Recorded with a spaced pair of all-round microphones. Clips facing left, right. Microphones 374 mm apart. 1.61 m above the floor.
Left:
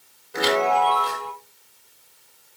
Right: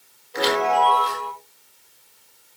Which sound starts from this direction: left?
A chime, at 0.3 s.